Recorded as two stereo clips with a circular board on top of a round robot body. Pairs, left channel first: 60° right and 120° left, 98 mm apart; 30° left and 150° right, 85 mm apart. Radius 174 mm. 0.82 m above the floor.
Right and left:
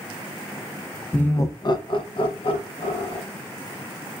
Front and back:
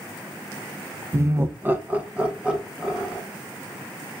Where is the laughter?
130° right, 0.5 m; by 3.2 s 70° right, 1.4 m.